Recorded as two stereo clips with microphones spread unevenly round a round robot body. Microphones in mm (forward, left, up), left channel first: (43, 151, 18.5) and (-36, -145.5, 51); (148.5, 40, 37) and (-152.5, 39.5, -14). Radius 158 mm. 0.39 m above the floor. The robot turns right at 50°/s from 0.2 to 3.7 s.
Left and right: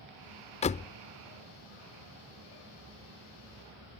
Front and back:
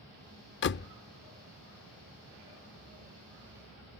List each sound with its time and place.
0.6 s a door slam: 35° left; by 0.9 s 50° left